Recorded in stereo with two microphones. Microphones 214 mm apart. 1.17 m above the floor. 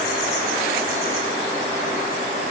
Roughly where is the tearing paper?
No tearing paper in this recording.